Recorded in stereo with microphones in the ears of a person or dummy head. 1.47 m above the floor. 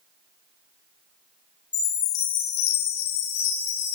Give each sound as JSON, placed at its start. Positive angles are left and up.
{"t": 1.7, "sound": "a chime", "side_deg": 55, "distance_m": 2.5}